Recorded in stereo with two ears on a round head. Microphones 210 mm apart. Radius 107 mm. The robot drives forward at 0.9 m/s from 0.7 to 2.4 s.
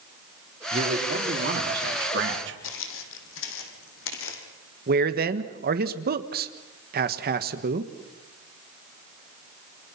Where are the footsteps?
60° left (ahead or behind), 3 m.